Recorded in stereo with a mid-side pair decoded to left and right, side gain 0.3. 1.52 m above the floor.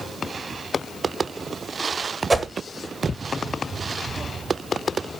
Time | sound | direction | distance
2.3 | a whoosh | 35° right | 2.0 m